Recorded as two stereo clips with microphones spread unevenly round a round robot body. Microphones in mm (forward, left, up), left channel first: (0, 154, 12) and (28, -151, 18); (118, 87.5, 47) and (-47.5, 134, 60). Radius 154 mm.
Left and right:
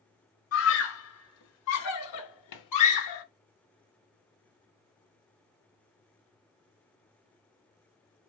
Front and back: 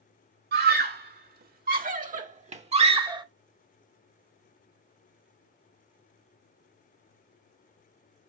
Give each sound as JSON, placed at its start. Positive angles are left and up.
{"t": 0.5, "sound": "a scream", "azimuth_deg": 145, "distance_m": 2.5}